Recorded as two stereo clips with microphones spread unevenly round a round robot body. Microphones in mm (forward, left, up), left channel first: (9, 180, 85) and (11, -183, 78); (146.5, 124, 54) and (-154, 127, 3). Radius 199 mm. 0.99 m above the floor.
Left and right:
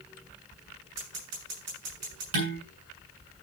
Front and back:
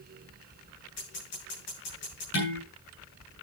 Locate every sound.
1.0 s scissors: 40° right, 10 m
2.3 s dishes clattering: 60° right, 7.5 m